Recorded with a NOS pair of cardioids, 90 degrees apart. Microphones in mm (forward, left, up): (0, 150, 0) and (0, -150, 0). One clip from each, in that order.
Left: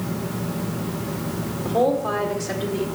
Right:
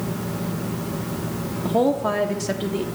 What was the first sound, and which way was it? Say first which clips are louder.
A woman speaking: even; 45° right.